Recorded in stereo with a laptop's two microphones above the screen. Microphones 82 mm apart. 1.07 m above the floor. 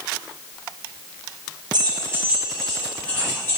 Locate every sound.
1.7 s keys jangling: 60° right (ahead or behind), 0.5 m; by 3.6 s 25° left (ahead or behind), 1.6 m